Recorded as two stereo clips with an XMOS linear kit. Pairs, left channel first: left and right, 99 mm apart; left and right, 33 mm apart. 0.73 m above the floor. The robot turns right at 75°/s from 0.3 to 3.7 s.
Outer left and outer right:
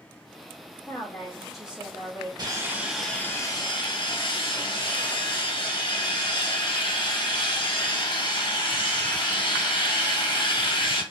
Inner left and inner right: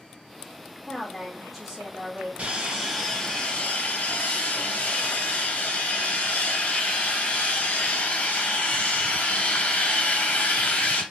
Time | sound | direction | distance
0.9 | a woman speaking | 130° left | 1.1 m
2.4 | sawing | 45° right | 0.9 m